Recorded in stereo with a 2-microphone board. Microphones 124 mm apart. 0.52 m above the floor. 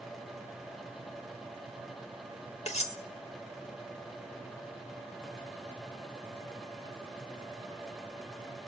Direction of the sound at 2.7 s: 60° left (ahead or behind).